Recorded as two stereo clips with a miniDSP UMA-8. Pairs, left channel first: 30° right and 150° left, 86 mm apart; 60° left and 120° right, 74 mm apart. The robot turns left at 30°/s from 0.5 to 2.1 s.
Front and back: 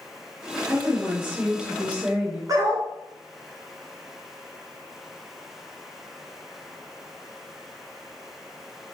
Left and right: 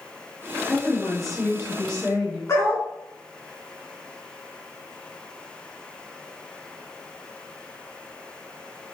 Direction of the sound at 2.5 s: 105° left.